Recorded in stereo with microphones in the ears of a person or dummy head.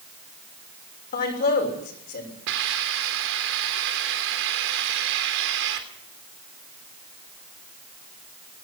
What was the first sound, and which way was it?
A man speaking, 60° left (ahead or behind).